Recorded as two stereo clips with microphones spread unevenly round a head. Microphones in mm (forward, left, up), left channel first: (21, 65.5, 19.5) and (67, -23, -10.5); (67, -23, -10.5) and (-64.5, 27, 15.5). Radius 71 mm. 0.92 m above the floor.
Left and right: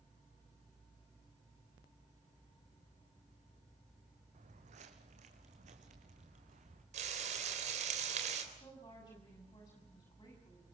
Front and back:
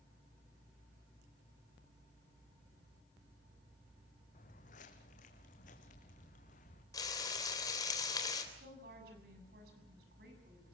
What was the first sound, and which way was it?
Footsteps, 60° right.